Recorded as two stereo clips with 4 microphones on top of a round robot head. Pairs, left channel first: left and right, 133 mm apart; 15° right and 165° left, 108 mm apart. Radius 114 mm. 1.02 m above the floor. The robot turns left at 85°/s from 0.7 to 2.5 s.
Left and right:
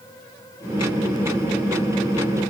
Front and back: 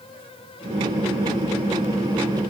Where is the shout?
No shout in this recording.